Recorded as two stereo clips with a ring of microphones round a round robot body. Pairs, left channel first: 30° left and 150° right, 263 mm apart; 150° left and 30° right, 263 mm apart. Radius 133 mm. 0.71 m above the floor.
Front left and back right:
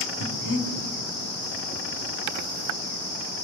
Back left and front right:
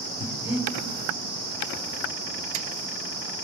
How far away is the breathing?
About 3 m.